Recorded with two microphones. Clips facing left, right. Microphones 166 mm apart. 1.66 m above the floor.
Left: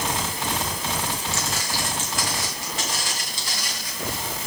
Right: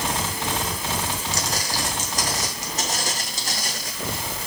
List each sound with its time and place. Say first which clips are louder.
1.3 s footsteps: right 1 dB; 40° right (ahead or behind), 4 m; by 3.9 s 45° right (ahead or behind), 6 m